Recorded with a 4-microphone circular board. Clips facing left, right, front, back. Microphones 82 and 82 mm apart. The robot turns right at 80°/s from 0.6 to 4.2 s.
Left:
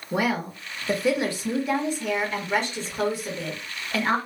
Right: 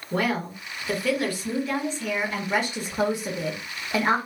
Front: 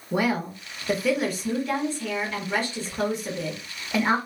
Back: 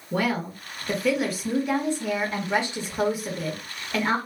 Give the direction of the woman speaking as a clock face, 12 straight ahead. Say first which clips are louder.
Left 1 dB, front 1 dB; 11 o'clock.